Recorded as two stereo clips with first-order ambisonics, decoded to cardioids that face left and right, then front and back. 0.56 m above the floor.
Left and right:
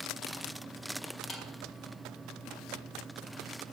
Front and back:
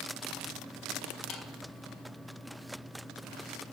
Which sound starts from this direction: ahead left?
A clap, at 1.3 s.